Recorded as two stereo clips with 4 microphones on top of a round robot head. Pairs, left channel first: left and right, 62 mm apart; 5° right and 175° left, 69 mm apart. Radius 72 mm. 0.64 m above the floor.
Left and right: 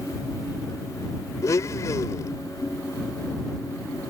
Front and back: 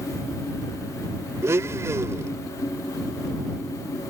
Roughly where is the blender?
Behind left.